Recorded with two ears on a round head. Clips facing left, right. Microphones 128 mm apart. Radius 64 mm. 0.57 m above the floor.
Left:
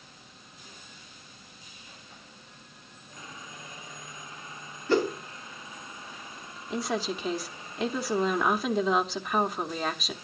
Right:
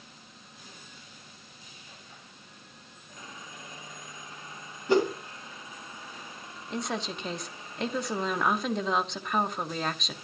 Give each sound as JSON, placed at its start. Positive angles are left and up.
{"t": 4.9, "sound": "a whoosh", "side_deg": -15, "distance_m": 2.5}
{"t": 6.7, "sound": "a woman speaking", "side_deg": 0, "distance_m": 0.7}